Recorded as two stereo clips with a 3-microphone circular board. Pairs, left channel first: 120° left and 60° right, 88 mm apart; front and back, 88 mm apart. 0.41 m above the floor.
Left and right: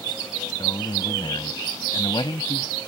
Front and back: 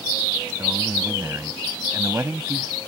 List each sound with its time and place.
0.6 s a man speaking: 125° left